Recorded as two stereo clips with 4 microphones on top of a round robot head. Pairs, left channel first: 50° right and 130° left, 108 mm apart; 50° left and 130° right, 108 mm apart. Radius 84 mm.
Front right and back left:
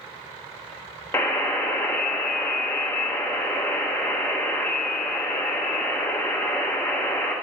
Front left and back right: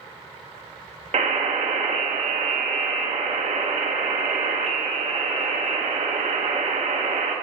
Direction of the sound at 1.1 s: 120° right.